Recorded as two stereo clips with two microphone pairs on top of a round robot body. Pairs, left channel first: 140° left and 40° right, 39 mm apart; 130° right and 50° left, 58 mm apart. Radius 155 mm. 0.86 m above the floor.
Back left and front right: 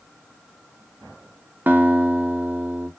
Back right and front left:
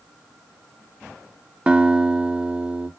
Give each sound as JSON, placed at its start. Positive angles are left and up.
{"t": 1.7, "sound": "a guitar", "azimuth_deg": -20, "distance_m": 0.6}